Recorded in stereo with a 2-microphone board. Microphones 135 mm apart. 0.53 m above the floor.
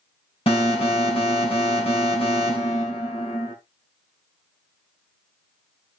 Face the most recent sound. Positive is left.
turn(degrees=45)  # may be behind; listen again after turning